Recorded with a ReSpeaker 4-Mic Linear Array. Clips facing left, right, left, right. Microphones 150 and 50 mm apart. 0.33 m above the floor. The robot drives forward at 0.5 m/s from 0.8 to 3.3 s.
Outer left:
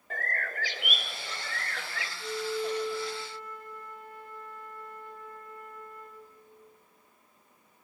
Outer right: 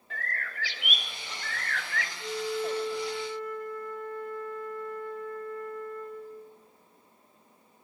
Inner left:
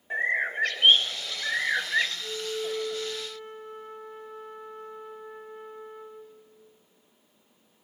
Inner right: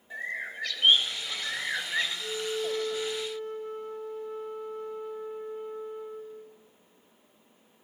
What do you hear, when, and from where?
0.1 s a bird: 45° left (ahead or behind), 0.5 m; by 2.1 s 20° left (ahead or behind), 1.0 m
2.2 s a flute: 65° right (ahead or behind), 3.5 m; by 6.6 s 55° right (ahead or behind), 4 m